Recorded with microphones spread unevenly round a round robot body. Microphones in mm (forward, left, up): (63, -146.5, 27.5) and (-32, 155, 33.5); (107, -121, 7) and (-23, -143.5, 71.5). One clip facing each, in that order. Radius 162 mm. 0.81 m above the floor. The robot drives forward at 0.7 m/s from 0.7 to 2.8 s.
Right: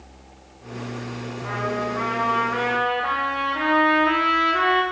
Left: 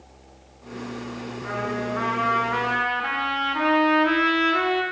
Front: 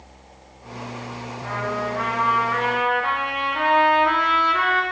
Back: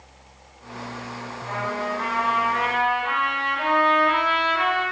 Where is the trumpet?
25° left, 2 m; by 4.8 s 40° left, 1.4 m.